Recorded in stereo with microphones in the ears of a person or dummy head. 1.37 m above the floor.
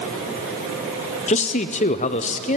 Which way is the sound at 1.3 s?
35° left (ahead or behind).